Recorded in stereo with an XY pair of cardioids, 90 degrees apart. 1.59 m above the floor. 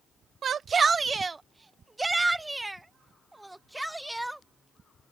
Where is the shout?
60° right; by 4.5 s 5° right.